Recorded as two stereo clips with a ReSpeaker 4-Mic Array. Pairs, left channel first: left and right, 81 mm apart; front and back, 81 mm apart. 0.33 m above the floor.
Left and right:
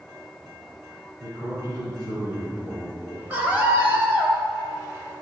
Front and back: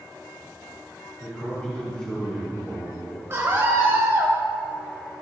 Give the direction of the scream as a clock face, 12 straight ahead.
5 o'clock.